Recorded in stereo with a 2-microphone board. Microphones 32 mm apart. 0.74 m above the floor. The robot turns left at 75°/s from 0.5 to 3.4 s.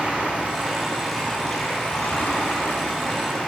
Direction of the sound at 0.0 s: 140° right.